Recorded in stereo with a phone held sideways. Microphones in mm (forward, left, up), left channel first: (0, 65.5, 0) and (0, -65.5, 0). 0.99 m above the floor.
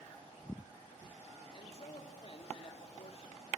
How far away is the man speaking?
About 1.9 m.